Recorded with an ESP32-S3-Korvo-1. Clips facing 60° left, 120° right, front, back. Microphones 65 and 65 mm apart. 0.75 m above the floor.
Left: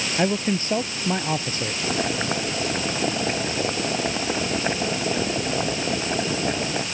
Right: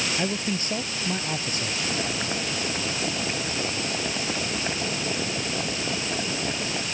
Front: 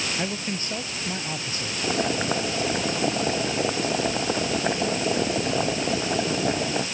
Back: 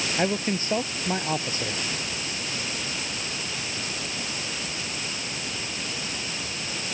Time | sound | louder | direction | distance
0.2 | a man speaking | left 5 dB, back 4 dB | 120° left | ?
1.8 | boiling | left 6 dB, front 8 dB | straight ahead | ?